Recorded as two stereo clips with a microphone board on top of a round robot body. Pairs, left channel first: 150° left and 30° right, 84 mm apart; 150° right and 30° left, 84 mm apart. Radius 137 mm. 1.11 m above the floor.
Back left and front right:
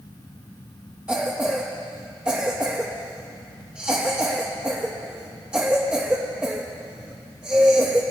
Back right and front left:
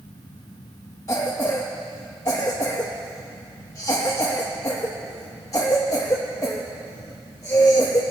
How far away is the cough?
About 1.1 m.